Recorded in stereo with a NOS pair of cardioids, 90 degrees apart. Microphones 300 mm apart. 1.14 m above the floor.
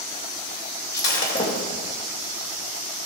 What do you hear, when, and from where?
0.9 s breaking glass: 35° left, 3.5 m